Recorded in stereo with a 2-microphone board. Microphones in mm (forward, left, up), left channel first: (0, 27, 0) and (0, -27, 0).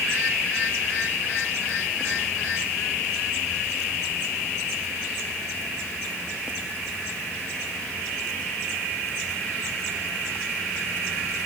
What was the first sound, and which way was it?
Only background noise.